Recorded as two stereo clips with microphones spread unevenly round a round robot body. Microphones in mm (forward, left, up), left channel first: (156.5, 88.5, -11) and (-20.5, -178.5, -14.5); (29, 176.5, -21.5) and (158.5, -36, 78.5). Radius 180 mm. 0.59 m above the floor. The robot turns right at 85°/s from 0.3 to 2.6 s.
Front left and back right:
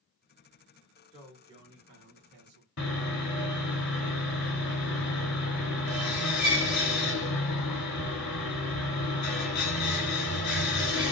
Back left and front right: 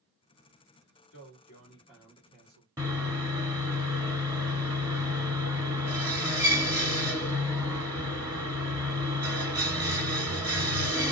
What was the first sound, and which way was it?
A man speaking, 130° left.